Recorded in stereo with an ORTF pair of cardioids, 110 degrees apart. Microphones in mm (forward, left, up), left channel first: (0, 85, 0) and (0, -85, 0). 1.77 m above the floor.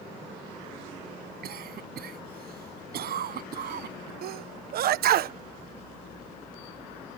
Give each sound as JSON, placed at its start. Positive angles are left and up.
{"t": 1.4, "sound": "a cough", "azimuth_deg": -65}
{"t": 4.2, "sound": "a sneeze", "azimuth_deg": -65}